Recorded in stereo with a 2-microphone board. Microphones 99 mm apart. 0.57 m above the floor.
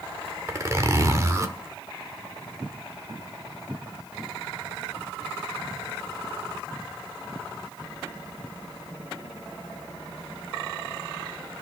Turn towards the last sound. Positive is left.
turn(degrees=-30)  # may be behind; listen again after turning